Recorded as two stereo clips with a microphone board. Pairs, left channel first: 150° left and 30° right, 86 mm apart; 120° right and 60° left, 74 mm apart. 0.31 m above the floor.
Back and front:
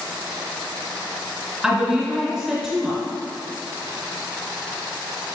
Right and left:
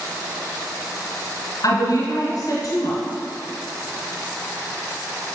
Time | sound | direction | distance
1.6 | a woman speaking | 120° right | 1.8 m